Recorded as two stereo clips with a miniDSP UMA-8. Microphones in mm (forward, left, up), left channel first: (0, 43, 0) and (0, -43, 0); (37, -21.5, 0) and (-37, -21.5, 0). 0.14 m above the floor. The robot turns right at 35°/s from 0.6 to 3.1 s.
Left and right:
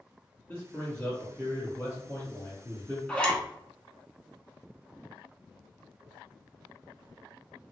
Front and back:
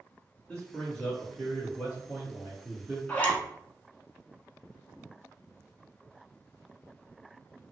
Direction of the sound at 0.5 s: 60° left.